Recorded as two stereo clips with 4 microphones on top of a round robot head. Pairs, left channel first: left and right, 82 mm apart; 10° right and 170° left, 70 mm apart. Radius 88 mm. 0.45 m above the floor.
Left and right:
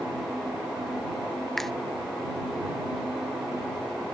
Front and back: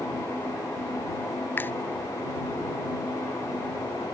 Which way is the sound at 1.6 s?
10° left.